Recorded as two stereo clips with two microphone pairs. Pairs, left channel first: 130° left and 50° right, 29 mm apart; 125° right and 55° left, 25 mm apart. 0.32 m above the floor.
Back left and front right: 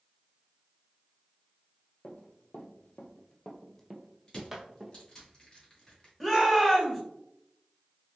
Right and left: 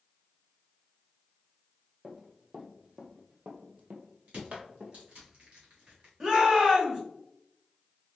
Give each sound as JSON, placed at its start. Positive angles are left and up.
{"t": 2.0, "sound": "running footsteps", "azimuth_deg": 125, "distance_m": 1.1}
{"t": 4.3, "sound": "crushing", "azimuth_deg": 75, "distance_m": 1.9}
{"t": 6.2, "sound": "a shout", "azimuth_deg": 55, "distance_m": 1.5}